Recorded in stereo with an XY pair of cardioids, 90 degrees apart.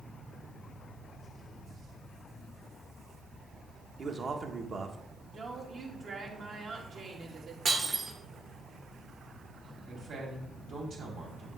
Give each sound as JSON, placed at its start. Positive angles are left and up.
{"t": 4.0, "sound": "a man speaking", "azimuth_deg": -45, "distance_m": 1.2}
{"t": 5.3, "sound": "a woman speaking", "azimuth_deg": -60, "distance_m": 2.0}
{"t": 7.7, "sound": "breaking glass", "azimuth_deg": -45, "distance_m": 1.6}
{"t": 9.8, "sound": "a man speaking", "azimuth_deg": -65, "distance_m": 3.0}